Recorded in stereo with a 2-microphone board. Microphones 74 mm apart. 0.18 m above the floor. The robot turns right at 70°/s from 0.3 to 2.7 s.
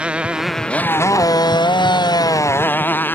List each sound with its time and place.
0.0 s a motorcycle: 15° right; by 3.2 s 155° left